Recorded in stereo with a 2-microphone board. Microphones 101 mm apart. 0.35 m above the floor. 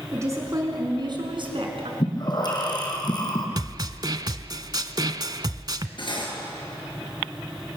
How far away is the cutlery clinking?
About 4 m.